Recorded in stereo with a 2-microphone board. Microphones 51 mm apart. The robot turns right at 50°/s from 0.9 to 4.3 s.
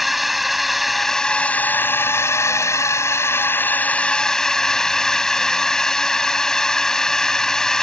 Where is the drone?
Straight ahead; by 7.8 s 170° left.